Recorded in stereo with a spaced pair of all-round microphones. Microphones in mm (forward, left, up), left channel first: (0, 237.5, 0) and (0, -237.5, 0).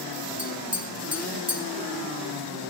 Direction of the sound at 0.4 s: 30° right (ahead or behind).